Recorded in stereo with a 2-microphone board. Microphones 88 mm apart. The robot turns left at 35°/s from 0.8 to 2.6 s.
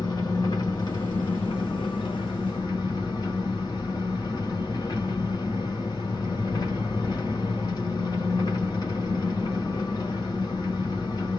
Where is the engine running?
120° left, 1.5 m; by 11.4 s 55° left, 1.5 m.